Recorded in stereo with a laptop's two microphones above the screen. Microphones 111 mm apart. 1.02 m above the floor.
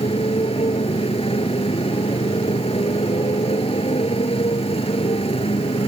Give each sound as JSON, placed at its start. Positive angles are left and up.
{"t": 0.0, "sound": "a motorcycle", "side_deg": 60}